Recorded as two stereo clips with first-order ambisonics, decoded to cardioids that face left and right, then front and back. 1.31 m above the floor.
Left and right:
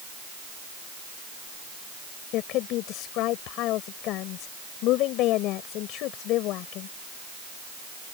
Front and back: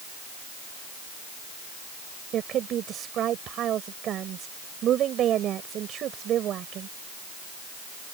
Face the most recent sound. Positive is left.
turn(degrees=125)